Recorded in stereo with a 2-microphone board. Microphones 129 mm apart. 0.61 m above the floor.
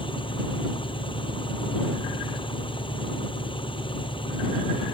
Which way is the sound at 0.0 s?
40° left (ahead or behind).